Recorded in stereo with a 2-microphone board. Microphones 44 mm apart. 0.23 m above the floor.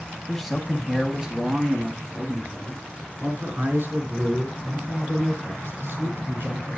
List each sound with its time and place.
0.3 s a man speaking: 5° left (ahead or behind), 1.7 m; by 6.8 s 65° right (ahead or behind), 5 m